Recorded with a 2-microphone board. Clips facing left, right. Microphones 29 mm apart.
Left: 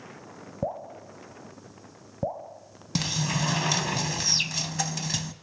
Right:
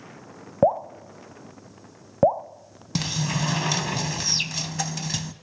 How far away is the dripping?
About 0.9 m.